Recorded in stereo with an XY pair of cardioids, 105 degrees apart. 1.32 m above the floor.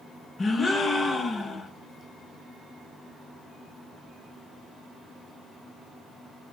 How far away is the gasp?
About 0.7 m.